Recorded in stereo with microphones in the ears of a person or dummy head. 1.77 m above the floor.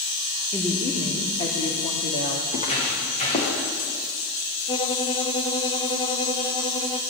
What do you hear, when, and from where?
0.5 s a woman speaking: 5° left (ahead or behind), 3.5 m; by 2.4 s 45° left (ahead or behind), 3 m
2.5 s footsteps: 35° left (ahead or behind), 7 m
4.7 s a violin: 20° left (ahead or behind), 1.2 m